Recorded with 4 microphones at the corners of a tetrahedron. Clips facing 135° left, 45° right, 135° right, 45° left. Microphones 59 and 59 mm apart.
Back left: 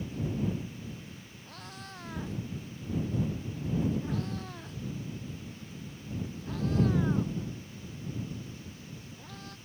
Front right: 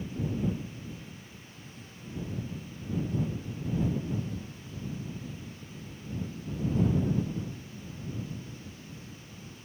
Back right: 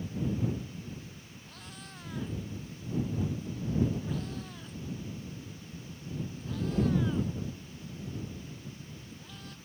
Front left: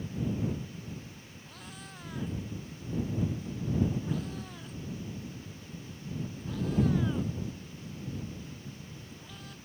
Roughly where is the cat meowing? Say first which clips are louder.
Back left 4 dB, front left 2 dB; behind left.